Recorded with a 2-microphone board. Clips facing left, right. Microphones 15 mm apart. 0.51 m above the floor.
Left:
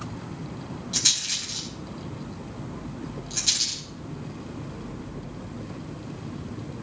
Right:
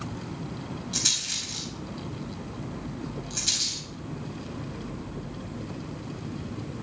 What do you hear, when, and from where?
0.9 s a rattle: 5° left (ahead or behind), 3.5 m